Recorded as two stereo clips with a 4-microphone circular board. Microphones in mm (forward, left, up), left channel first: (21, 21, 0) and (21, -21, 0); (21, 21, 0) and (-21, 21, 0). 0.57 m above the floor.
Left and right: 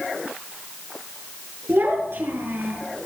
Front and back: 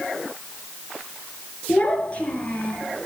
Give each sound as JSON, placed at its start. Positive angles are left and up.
{"t": 1.7, "sound": "a child speaking", "azimuth_deg": -60, "distance_m": 5.5}